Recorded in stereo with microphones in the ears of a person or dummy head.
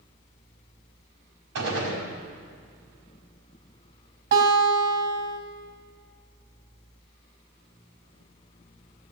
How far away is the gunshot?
About 4.5 m.